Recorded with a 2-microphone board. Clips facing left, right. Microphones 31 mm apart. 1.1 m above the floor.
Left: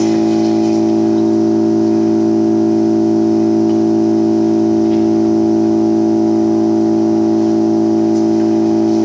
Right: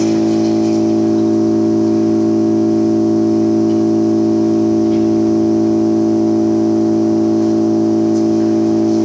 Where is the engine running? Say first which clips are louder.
Left 1 dB; 55° left (ahead or behind), 5.5 m.